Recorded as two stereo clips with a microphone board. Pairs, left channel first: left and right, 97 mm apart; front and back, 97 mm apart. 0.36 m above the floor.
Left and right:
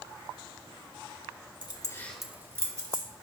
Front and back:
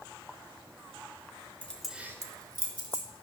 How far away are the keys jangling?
About 0.9 m.